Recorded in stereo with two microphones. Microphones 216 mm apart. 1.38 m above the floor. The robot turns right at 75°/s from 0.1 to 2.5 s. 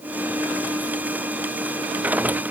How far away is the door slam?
I don't hear a door slam.